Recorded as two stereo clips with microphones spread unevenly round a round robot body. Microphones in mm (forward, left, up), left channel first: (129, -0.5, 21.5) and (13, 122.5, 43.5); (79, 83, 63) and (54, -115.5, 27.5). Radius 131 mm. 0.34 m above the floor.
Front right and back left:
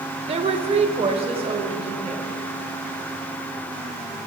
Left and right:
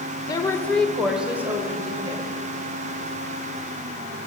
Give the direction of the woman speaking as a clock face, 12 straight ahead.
7 o'clock.